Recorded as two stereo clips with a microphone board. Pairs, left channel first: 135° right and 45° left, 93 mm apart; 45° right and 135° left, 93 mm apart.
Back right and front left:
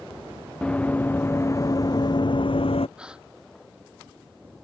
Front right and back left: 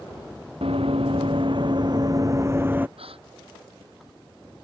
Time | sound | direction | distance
0.6 | running footsteps | 145° left | ?
3.0 | a gasp | 125° left | ?